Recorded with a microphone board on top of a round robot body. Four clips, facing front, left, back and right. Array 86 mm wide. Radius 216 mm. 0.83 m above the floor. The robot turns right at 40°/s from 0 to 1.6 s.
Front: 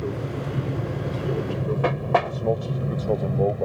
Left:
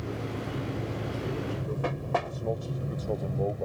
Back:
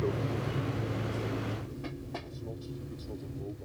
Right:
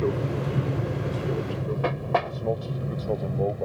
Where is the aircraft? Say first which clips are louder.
Right 8 dB, front 3 dB; 85° right; by 3.6 s 15° right.